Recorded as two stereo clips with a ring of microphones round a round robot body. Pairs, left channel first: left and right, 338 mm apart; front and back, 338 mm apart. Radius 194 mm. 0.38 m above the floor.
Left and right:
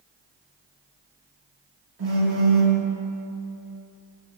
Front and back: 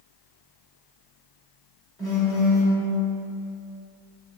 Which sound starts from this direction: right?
A phone buzzing, at 2.0 s.